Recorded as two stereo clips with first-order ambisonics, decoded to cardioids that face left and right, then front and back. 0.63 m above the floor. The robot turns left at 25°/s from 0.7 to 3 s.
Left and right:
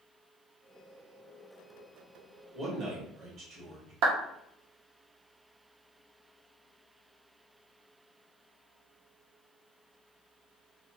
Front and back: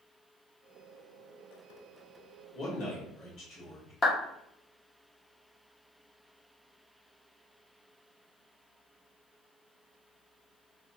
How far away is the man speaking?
About 1.9 m.